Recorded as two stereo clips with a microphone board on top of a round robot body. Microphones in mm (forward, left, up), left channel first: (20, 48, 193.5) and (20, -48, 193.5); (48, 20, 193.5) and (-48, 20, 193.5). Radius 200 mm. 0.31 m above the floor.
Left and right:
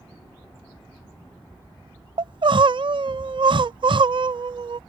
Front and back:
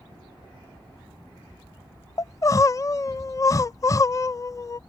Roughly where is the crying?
Ahead right.